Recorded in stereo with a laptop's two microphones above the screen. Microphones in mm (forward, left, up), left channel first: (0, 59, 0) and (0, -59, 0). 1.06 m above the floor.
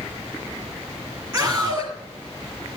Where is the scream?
25° right (ahead or behind), 2.5 m.